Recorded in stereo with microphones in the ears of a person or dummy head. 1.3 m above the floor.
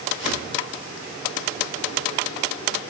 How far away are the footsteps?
About 2.0 m.